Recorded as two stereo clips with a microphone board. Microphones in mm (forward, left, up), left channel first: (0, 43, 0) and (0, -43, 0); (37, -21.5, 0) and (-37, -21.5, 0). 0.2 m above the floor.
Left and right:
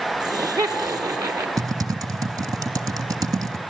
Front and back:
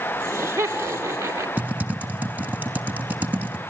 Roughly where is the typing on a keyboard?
Behind right.